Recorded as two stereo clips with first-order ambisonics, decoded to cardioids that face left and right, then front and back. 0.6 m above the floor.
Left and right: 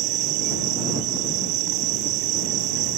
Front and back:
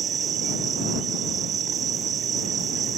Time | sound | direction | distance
0.0 | an insect | 120° right | ?